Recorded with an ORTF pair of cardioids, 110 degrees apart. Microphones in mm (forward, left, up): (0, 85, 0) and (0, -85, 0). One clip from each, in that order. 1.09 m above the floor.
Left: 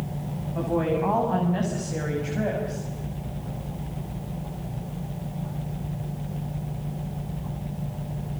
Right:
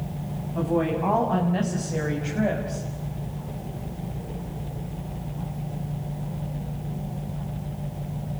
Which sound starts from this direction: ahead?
A woman speaking, at 0.6 s.